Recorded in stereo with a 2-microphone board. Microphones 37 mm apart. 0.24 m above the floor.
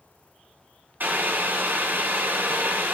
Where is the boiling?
60° right (ahead or behind), 0.6 m.